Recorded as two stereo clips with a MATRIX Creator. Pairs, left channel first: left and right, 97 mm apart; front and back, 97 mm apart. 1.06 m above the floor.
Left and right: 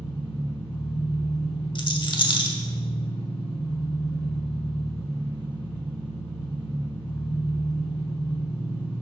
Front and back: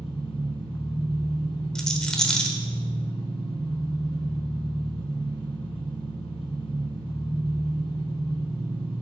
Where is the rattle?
80° left, 1.0 m.